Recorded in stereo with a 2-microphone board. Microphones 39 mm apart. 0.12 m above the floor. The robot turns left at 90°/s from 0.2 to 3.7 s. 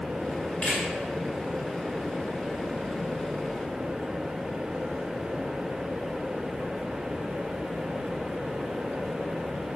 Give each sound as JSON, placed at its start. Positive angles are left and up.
{"t": 0.6, "sound": "a camera shutter", "side_deg": 40, "distance_m": 1.7}